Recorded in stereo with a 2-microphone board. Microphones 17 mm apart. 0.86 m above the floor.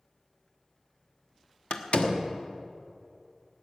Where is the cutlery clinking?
No cutlery clinking in this recording.